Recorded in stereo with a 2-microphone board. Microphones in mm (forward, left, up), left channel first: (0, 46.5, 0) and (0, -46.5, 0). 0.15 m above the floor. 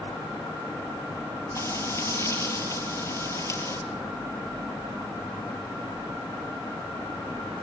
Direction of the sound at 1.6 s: 35° left (ahead or behind).